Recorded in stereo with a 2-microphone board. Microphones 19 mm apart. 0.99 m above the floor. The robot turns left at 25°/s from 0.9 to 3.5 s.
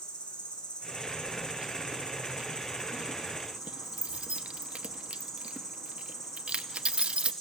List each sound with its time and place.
0.0 s an insect: 100° left, 4.5 m; by 7.4 s 35° left, 4.5 m
1.3 s keys jangling: 45° right (ahead or behind), 0.8 m; by 7.3 s 80° right, 0.8 m